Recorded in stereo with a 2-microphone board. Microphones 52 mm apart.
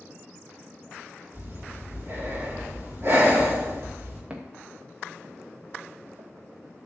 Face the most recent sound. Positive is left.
turn(degrees=-80)